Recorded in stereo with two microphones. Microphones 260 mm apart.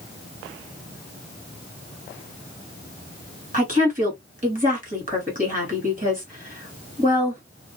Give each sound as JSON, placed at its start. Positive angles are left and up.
{"t": 3.5, "sound": "a woman speaking", "side_deg": -30, "distance_m": 1.7}